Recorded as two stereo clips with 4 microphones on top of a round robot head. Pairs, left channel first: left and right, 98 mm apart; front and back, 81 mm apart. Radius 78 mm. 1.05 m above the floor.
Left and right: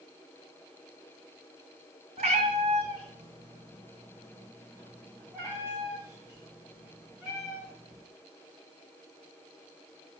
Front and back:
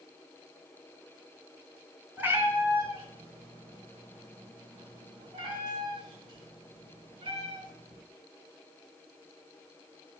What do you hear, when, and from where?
2.2 s a cat meowing: 100° right, 0.9 m; by 8.0 s 170° right, 4 m